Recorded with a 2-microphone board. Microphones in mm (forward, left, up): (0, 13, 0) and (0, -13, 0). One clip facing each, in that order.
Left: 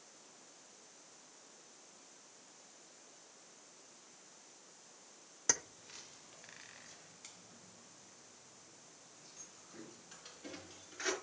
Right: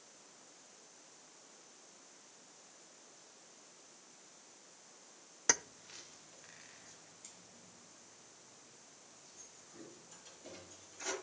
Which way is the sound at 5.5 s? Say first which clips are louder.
Right 3 dB; 25° right (ahead or behind).